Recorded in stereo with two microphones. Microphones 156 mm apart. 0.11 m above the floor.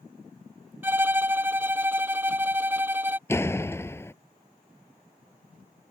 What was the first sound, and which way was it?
A violin, 15° right (ahead or behind).